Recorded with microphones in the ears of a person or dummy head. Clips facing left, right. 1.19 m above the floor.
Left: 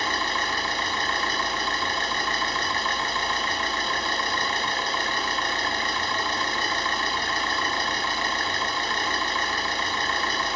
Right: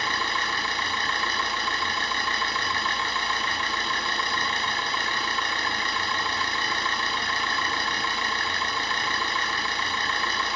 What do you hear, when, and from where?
0.0 s an engine running: 35° left (ahead or behind), 1.7 m